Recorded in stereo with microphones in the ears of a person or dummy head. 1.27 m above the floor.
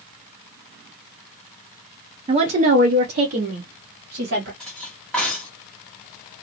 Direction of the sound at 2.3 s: 30° right (ahead or behind).